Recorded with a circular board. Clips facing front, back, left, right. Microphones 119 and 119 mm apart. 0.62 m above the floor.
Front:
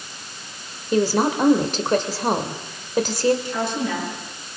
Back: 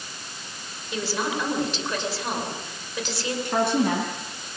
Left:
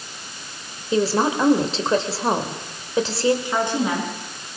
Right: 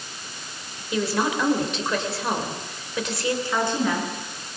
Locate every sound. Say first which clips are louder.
0.9 s a woman speaking: front 9 dB, left 4 dB; 35° left, 2.5 m
3.5 s a woman speaking: back 3 dB, left 2 dB; 160° left, 7.5 m